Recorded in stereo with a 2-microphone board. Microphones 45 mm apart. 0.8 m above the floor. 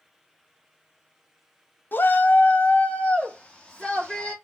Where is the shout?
45° left (ahead or behind), 0.5 m; by 4.3 s 20° left (ahead or behind), 1.5 m.